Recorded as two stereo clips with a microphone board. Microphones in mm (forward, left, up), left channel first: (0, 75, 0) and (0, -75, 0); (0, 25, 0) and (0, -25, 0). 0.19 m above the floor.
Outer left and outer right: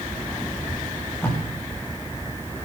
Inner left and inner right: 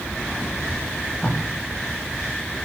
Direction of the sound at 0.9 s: 15° left (ahead or behind).